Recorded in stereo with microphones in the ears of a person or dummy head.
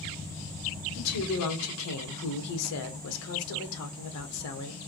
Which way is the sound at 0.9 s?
90° left.